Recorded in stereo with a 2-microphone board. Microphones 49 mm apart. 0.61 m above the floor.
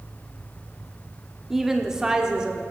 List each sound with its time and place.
1.5 s a woman speaking: 5° right (ahead or behind), 1.0 m; by 2.6 s 20° right (ahead or behind), 1.6 m